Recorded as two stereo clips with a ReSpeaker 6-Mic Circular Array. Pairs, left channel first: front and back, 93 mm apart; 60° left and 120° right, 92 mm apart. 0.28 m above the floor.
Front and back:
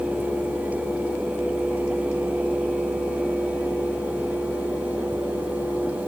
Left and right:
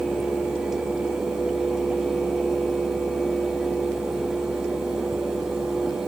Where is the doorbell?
I don't hear a doorbell.